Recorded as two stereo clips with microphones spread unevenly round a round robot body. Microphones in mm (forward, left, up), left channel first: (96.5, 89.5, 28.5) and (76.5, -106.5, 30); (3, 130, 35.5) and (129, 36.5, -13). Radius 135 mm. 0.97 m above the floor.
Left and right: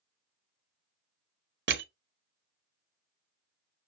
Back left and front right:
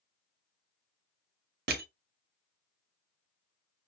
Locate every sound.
1.7 s crushing: 65° right, 0.8 m